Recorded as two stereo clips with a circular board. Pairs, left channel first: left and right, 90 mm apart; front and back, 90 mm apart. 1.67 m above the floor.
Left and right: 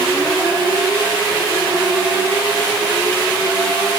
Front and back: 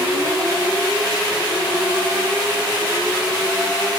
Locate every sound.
Only background noise.